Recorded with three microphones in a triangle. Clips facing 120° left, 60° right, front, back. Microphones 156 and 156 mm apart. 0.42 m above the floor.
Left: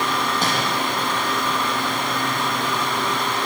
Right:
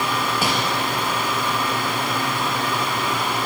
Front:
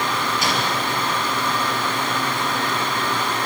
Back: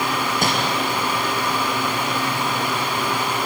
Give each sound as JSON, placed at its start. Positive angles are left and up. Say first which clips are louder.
{"t": 0.4, "sound": "crumpling", "louder": "right 2 dB, back 3 dB", "azimuth_deg": -140, "distance_m": 4.0}